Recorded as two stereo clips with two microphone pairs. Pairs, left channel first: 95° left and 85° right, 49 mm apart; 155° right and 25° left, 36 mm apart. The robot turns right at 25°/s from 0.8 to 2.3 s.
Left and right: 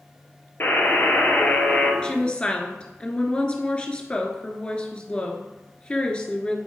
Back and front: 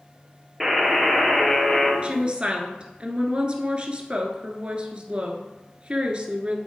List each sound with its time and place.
0.6 s a buzzer: 110° left, 1.9 m; by 1.9 s 140° left, 1.9 m
2.0 s a woman speaking: 40° left, 1.3 m; by 6.6 s 50° left, 1.3 m